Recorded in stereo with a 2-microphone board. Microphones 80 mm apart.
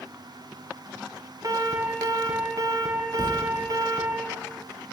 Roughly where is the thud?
Right.